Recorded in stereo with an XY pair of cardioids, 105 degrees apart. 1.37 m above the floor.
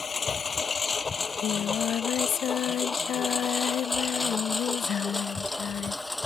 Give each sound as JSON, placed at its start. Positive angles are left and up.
{"t": 0.0, "sound": "a lawn mower", "azimuth_deg": 30}
{"t": 1.2, "sound": "singing", "azimuth_deg": 60}